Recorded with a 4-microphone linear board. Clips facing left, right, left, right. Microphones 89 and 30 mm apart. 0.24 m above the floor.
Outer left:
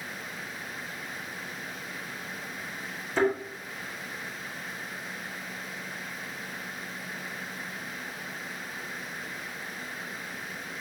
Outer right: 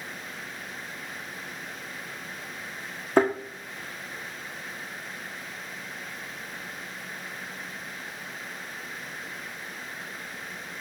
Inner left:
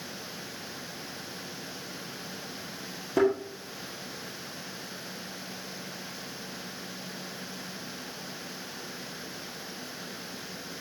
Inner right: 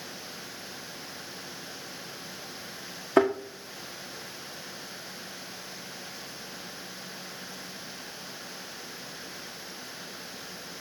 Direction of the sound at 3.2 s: 55° right (ahead or behind).